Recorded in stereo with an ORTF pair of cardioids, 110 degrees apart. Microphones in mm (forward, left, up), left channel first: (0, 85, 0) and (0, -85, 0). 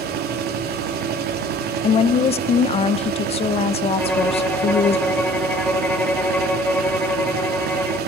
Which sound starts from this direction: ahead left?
A woman speaking, at 1.8 s.